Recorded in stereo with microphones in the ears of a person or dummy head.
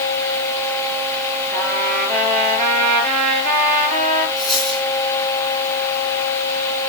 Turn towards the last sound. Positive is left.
turn(degrees=0)  # may be behind; listen again after turning